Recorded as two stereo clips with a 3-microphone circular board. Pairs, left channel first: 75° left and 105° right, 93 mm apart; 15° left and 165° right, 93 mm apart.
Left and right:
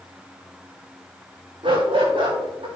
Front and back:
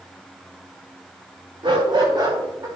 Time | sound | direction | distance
1.6 | a dog barking | 130° right | 6 m